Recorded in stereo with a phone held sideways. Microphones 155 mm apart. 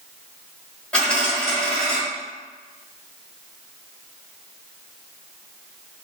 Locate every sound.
0.9 s a dropped coin: 5° left (ahead or behind), 1.8 m